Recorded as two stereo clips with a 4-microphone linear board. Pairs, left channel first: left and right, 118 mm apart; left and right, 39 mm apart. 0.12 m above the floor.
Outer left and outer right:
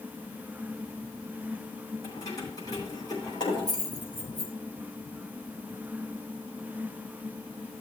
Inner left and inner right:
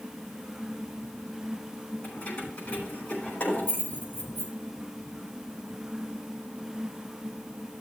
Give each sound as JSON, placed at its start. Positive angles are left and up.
{"t": 2.0, "sound": "keys jangling", "side_deg": 30, "distance_m": 5.5}